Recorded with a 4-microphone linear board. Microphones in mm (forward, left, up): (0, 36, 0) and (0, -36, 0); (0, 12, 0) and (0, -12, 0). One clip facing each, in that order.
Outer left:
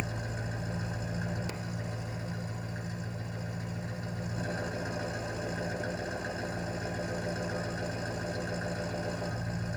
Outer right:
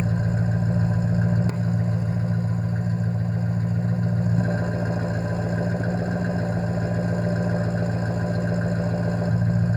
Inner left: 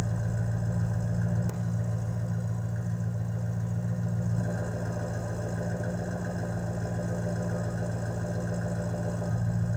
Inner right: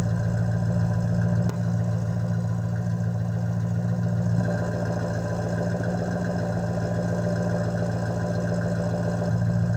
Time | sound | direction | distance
0.0 | an engine running | 40° right (ahead or behind) | 1.0 m